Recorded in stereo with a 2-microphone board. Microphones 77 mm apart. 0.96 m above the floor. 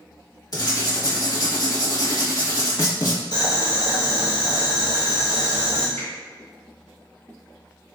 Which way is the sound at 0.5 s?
50° left (ahead or behind).